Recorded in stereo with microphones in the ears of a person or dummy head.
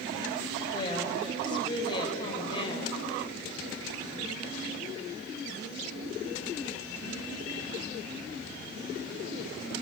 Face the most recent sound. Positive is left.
turn(degrees=25)  # may be behind; listen again after turning